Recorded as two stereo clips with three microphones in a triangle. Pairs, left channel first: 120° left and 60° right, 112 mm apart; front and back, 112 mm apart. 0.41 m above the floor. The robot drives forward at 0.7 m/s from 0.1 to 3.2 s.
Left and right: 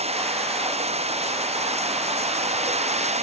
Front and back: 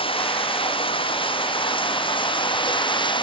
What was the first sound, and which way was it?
Running water, 35° right.